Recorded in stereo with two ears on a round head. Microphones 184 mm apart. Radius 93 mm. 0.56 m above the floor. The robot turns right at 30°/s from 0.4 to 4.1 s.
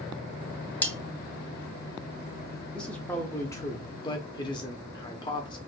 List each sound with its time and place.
0.8 s cutlery clinking: 5° left (ahead or behind), 0.5 m
2.7 s a man speaking: 5° left (ahead or behind), 0.6 m; by 5.6 s 20° left (ahead or behind), 0.6 m